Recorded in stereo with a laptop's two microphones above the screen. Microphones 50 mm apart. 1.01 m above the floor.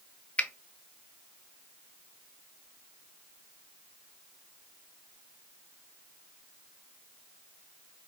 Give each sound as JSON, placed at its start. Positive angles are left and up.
{"t": 0.4, "sound": "a finger snap", "side_deg": 25, "distance_m": 0.6}